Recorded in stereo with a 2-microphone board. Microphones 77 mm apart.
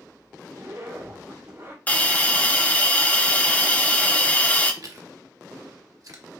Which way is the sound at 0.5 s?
35° right (ahead or behind).